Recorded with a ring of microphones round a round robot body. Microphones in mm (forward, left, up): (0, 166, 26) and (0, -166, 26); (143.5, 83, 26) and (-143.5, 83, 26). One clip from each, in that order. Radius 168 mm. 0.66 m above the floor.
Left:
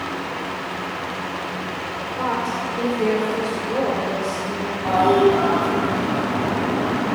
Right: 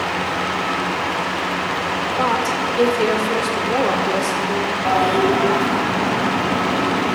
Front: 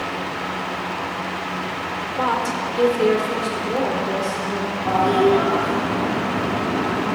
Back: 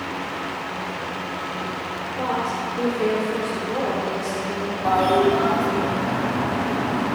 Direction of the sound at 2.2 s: 40° right.